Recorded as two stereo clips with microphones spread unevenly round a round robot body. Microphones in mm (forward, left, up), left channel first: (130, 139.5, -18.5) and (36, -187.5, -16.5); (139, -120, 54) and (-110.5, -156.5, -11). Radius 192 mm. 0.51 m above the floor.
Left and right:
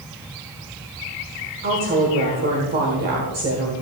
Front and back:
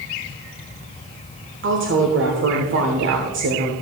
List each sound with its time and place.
1.6 s a woman speaking: 170° right, 1.2 m